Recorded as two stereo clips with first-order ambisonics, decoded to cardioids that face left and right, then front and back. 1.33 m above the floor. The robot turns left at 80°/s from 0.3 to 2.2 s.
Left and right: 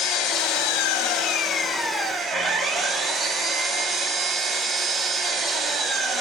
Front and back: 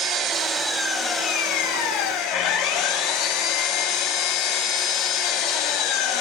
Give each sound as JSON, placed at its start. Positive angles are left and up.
{"t": 0.0, "sound": "an engine running", "azimuth_deg": 130, "distance_m": 0.8}